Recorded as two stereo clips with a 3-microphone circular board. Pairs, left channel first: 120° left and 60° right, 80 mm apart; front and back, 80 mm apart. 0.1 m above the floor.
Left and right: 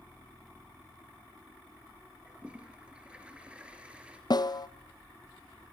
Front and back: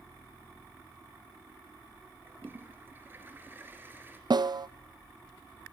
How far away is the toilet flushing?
About 2 m.